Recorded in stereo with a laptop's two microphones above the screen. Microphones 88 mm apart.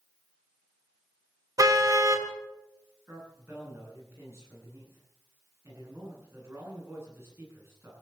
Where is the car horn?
45° right (ahead or behind), 2.5 m.